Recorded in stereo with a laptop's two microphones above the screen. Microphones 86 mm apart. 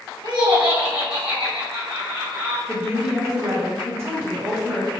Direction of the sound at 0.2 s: 65° right (ahead or behind).